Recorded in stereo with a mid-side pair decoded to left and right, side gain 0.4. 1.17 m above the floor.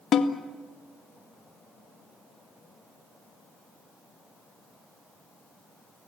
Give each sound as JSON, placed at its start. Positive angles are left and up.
{"t": 0.1, "sound": "a snare drum", "azimuth_deg": 60, "distance_m": 1.9}